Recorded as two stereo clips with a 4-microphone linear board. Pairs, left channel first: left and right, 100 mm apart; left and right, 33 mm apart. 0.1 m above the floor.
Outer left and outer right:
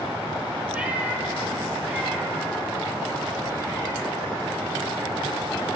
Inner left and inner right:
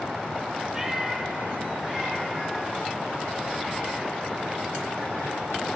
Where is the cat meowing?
10° right (ahead or behind), 1.5 m; by 4.1 s 25° right (ahead or behind), 5.5 m.